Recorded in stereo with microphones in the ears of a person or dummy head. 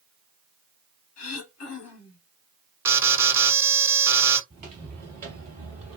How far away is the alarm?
About 1.0 m.